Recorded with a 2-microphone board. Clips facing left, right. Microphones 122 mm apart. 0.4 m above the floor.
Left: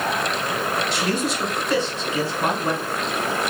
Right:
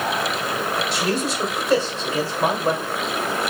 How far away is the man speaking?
About 1.5 m.